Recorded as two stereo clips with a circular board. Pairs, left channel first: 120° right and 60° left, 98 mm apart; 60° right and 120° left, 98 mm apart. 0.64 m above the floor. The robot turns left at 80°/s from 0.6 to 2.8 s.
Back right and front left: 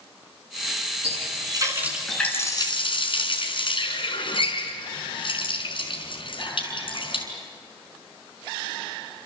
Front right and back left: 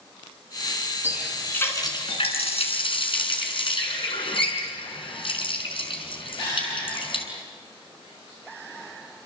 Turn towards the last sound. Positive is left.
turn(degrees=-90)